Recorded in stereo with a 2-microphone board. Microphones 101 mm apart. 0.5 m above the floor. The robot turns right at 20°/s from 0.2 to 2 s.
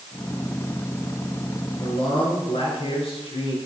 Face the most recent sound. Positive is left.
turn(degrees=75)  # may be behind; listen again after turning